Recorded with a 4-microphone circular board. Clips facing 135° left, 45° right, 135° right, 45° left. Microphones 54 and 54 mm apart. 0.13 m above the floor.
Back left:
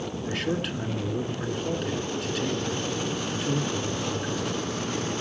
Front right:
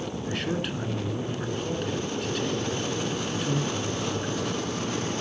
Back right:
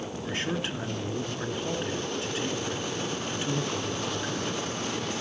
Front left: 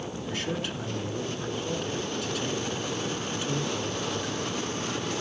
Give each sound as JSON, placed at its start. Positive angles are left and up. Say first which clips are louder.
{"t": 0.2, "sound": "a man speaking", "louder": "back left 2 dB, back right 1 dB", "azimuth_deg": -135, "distance_m": 1.4}